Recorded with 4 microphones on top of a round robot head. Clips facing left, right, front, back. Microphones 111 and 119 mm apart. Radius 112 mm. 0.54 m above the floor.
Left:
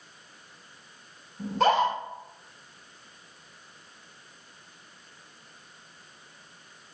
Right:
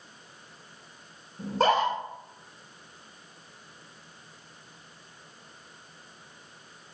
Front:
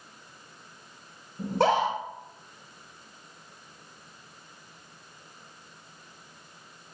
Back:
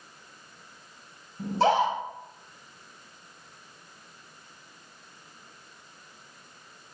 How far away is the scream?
About 2 m.